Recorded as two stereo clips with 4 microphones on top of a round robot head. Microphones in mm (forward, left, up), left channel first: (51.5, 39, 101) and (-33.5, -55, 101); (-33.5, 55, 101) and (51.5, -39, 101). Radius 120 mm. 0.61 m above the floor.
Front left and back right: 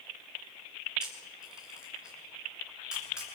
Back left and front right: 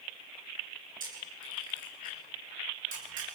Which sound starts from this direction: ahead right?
A camera shutter, at 1.0 s.